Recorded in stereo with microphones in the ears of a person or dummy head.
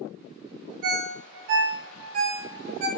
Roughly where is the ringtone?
Right.